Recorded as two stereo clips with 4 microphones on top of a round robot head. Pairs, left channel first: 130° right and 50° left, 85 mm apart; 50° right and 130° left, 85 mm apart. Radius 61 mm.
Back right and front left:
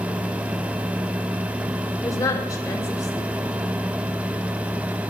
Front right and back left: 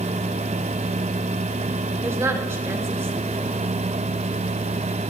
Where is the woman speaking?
175° right, 3.5 m.